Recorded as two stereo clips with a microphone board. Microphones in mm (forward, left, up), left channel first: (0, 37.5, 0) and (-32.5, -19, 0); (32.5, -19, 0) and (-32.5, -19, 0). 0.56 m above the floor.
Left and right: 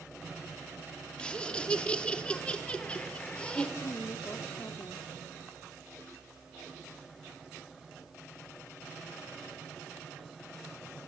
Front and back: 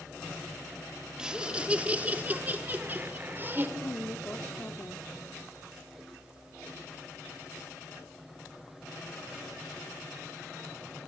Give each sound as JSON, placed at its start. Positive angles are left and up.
{"t": 1.2, "sound": "laughter", "azimuth_deg": 115, "distance_m": 1.4}
{"t": 3.8, "sound": "a woman speaking", "azimuth_deg": 35, "distance_m": 1.0}